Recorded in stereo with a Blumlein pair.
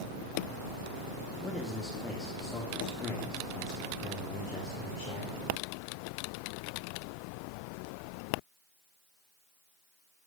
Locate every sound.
1.4 s a man speaking: straight ahead, 2.5 m; by 5.4 s 35° left, 4.5 m